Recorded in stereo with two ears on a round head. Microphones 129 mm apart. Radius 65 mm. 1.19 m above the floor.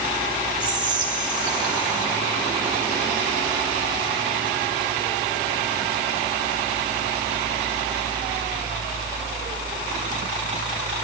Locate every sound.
0.6 s whispering: 35° right (ahead or behind), 5 m